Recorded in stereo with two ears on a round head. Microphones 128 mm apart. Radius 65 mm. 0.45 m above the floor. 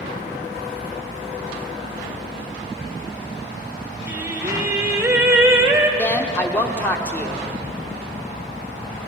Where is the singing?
15° right (ahead or behind), 1.0 m.